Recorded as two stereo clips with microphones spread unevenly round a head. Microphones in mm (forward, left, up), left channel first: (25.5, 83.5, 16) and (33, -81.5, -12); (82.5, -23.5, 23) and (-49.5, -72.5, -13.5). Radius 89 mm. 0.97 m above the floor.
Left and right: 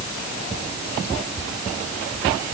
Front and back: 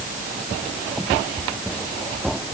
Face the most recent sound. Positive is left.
No sound to turn to.